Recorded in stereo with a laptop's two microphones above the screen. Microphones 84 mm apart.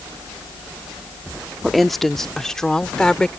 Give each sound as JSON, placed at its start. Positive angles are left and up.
{"t": 1.6, "sound": "a woman speaking", "side_deg": 0}